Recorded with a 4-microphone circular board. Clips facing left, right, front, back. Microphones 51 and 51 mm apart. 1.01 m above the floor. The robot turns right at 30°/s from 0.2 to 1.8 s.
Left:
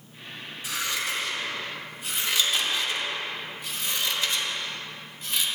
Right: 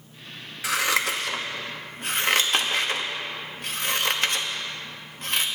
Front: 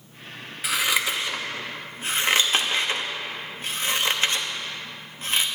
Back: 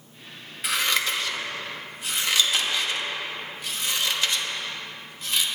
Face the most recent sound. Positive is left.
turn(degrees=-50)